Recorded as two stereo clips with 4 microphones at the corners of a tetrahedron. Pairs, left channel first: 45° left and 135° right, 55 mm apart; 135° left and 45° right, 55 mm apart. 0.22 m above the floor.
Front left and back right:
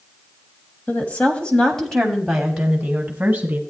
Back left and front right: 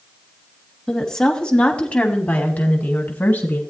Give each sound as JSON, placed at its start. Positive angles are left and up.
{"t": 0.9, "sound": "a woman speaking", "azimuth_deg": 65, "distance_m": 1.4}